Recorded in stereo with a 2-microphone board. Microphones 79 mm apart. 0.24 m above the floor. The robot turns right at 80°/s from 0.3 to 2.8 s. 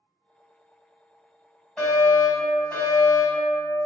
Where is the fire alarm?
10° left (ahead or behind), 1.9 m; by 3.5 s 20° left (ahead or behind), 1.9 m.